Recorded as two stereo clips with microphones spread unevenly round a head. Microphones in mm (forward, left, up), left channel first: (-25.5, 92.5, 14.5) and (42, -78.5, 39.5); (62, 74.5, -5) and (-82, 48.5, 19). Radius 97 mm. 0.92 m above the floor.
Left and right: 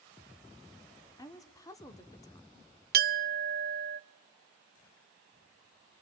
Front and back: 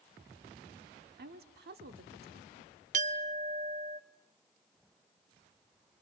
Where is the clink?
115° right, 0.7 m.